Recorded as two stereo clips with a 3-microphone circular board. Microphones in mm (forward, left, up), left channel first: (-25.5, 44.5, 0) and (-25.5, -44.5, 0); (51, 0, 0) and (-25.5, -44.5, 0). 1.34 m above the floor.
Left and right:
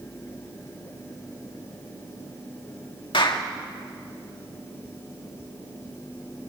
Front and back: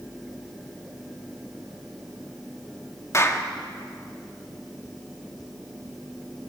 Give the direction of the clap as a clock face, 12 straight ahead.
9 o'clock.